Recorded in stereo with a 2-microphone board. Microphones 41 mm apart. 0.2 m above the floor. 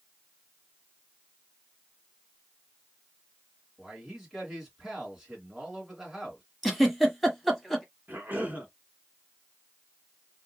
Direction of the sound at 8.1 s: 45° right (ahead or behind).